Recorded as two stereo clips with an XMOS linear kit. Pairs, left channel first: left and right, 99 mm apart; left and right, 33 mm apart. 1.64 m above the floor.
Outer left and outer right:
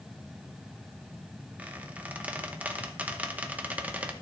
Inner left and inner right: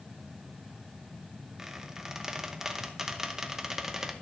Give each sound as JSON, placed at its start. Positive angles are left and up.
{"t": 1.6, "sound": "a squeak", "side_deg": -15, "distance_m": 0.8}